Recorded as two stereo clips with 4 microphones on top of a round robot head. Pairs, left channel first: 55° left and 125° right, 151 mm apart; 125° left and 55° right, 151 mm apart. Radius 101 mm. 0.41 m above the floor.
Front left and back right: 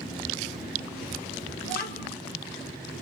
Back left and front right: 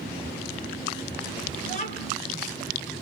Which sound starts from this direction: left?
A child speaking, at 1.6 s.